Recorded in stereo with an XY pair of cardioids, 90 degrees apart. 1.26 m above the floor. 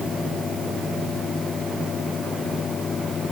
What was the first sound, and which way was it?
A fan, 50° left.